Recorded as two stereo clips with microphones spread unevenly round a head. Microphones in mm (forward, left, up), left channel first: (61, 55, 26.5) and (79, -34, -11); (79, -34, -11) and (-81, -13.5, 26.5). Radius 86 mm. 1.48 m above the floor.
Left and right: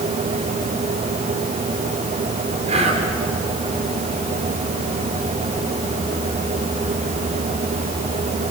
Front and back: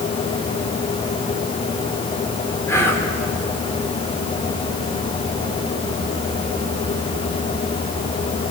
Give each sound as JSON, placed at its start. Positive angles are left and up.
{"t": 2.7, "sound": "whispering", "azimuth_deg": -85, "distance_m": 4.0}